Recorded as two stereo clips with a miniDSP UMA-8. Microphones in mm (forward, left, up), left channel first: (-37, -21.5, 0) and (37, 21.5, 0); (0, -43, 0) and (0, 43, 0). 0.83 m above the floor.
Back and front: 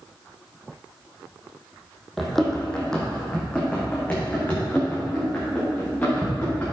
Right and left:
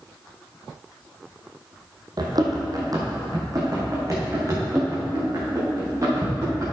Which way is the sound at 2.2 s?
120° left.